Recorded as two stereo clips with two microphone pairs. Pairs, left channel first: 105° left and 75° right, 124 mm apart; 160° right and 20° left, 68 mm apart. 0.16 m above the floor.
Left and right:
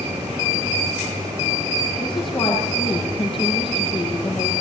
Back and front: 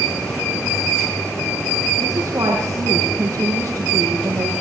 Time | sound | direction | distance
2.0 | a woman speaking | 60° left | 6.5 m